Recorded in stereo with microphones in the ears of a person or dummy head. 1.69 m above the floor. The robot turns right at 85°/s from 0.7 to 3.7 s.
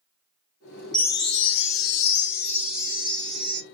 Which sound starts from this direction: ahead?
A chime, at 0.9 s.